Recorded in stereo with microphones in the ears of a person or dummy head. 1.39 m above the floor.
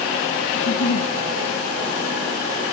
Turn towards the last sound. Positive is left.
turn(degrees=60)  # may be behind; listen again after turning